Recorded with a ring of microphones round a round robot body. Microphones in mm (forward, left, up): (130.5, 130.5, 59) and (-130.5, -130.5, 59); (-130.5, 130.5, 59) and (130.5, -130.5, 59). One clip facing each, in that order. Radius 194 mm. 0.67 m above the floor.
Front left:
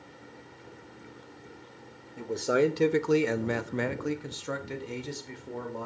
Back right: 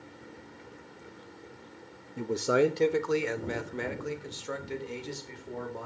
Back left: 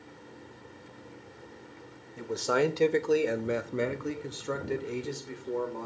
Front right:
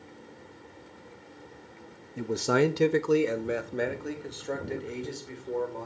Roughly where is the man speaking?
Right.